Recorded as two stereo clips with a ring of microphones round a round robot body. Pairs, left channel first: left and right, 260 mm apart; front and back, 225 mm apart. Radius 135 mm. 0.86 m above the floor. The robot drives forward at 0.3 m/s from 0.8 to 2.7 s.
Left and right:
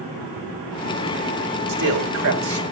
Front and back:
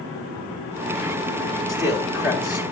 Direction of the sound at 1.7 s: 90° right.